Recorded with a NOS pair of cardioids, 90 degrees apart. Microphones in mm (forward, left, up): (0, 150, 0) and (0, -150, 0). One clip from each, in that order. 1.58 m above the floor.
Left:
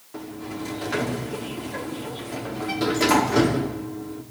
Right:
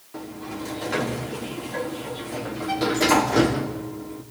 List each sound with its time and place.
0.1 s a sliding door: 5° left, 4.5 m